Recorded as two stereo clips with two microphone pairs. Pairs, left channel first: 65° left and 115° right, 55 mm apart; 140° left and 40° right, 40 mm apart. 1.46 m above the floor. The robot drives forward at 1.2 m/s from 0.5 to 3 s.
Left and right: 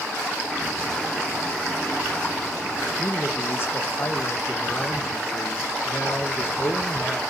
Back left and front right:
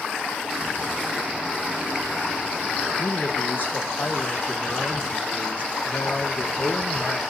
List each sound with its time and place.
3.0 s a man speaking: 105° left, 1.2 m